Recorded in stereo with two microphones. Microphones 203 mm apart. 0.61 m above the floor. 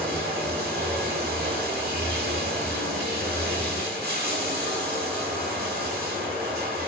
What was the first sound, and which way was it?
Running water, 50° right (ahead or behind).